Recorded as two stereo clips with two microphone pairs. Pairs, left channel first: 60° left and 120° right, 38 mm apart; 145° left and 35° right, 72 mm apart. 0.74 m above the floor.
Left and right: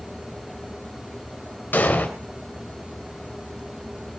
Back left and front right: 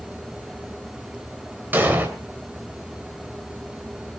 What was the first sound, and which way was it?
An explosion, 30° left.